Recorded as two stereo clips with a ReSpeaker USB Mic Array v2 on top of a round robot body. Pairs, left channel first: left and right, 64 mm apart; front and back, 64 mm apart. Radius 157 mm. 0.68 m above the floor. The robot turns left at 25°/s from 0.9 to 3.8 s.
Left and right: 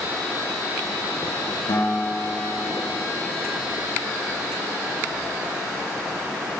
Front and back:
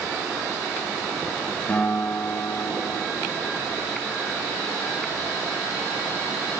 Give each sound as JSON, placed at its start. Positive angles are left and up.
{"t": 1.7, "sound": "a guitar", "azimuth_deg": 70, "distance_m": 9.5}